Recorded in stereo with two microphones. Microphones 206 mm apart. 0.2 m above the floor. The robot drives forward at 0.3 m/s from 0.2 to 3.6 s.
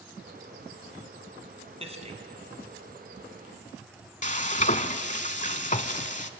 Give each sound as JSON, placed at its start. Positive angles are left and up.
{"t": 1.8, "sound": "a man speaking", "side_deg": -30, "distance_m": 2.0}
{"t": 4.2, "sound": "frying", "side_deg": 40, "distance_m": 0.7}